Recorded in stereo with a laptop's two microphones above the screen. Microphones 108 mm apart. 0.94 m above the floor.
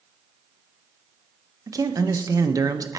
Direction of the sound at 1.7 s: 35° right (ahead or behind).